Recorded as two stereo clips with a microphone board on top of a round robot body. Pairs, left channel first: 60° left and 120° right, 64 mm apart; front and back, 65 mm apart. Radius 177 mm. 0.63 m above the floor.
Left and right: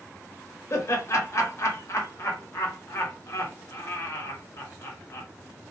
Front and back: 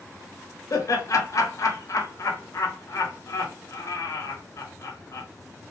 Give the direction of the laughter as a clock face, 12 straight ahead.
11 o'clock.